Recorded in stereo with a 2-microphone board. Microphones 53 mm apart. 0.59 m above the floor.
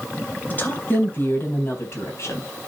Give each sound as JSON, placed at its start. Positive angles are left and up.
{"t": 0.5, "sound": "a woman speaking", "side_deg": 30, "distance_m": 3.5}